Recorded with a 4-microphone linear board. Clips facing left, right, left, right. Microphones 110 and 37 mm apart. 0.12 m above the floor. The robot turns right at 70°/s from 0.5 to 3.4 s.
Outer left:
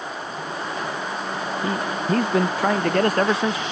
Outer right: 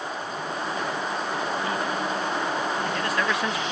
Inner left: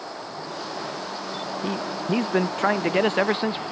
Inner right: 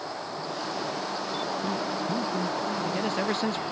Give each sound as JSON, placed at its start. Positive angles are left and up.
{"t": 1.6, "sound": "a man speaking", "azimuth_deg": 30}